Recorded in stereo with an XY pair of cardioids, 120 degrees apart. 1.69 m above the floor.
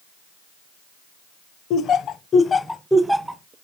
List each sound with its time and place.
1.7 s laughter: 60° left, 0.8 m; by 3.5 s 25° right, 0.8 m